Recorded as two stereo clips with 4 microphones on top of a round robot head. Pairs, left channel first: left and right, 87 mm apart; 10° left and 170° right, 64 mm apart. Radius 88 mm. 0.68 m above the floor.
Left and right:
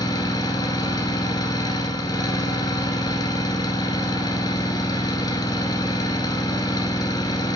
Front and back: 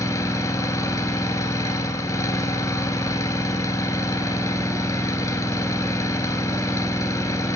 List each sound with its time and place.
0.0 s an engine running: 45° left, 5 m